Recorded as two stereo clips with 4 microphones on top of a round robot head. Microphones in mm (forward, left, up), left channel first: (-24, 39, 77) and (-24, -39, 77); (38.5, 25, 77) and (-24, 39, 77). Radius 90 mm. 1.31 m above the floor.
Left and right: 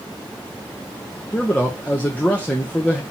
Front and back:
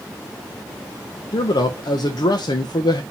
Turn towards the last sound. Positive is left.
turn(degrees=10)